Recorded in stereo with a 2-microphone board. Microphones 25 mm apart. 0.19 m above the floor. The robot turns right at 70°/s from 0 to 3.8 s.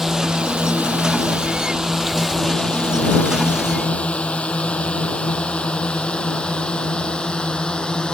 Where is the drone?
15° right (ahead or behind); by 8.1 s 40° left (ahead or behind).